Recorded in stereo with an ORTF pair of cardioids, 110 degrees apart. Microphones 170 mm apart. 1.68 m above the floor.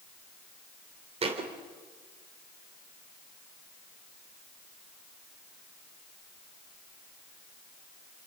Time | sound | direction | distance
1.2 | a thud | 35° right | 3.5 m